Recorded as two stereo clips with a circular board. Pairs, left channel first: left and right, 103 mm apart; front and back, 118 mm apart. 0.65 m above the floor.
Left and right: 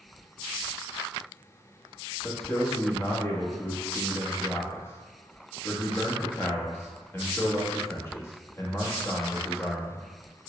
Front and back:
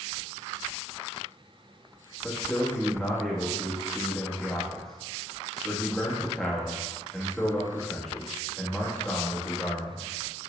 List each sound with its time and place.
2.2 s a man speaking: 80° left, 0.8 m